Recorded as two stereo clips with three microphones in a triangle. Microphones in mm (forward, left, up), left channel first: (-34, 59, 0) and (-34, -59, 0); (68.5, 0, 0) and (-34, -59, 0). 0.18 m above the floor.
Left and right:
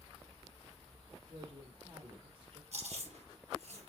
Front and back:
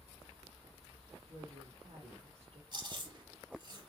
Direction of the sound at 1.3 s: 125° right.